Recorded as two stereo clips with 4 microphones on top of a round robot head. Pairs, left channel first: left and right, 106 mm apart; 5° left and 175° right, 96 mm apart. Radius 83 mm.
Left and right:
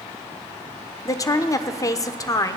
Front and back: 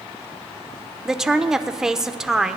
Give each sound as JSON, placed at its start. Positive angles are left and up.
{"t": 1.1, "sound": "a woman speaking", "azimuth_deg": 105, "distance_m": 1.0}